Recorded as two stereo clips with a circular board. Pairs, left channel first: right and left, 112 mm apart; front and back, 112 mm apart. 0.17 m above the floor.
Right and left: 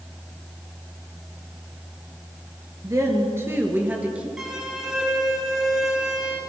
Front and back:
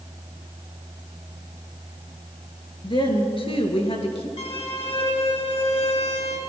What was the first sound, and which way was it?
A woman speaking, 35° left.